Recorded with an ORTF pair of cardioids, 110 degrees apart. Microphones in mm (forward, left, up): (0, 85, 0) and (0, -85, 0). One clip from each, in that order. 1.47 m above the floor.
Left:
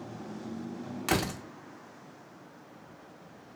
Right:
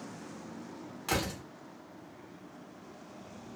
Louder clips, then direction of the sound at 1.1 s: Left 3 dB; 35° left.